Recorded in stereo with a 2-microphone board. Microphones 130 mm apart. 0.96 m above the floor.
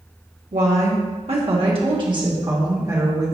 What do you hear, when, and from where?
0.5 s a woman speaking: 70° right (ahead or behind), 1.8 m; by 3.4 s 20° right (ahead or behind), 2.5 m